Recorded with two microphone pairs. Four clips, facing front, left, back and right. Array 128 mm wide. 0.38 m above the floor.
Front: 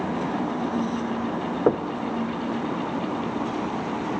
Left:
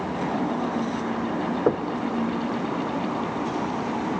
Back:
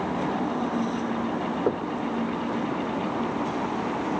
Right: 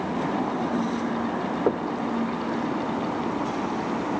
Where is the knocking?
10° left, 0.5 m.